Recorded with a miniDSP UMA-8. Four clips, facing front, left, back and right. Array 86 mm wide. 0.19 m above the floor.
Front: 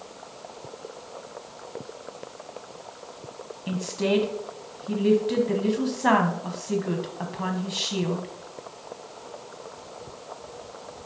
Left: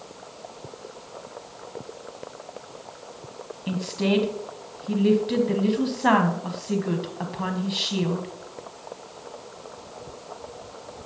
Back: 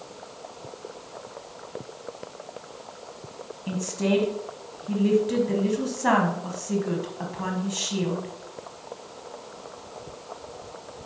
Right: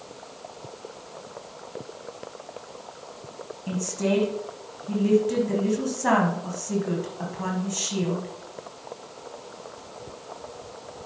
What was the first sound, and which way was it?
A woman speaking, 70° left.